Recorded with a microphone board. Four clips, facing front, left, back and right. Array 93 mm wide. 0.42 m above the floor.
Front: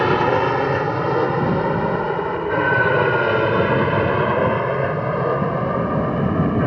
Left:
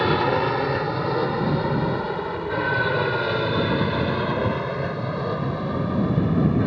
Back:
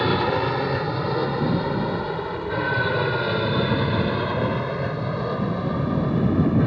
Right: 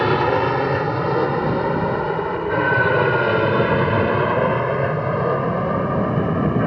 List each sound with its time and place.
0.0 s an aircraft: 30° right; by 6.7 s 45° right